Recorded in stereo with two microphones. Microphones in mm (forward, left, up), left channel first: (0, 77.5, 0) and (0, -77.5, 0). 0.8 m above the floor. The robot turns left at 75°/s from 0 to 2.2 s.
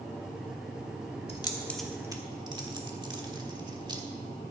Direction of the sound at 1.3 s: 40° left (ahead or behind).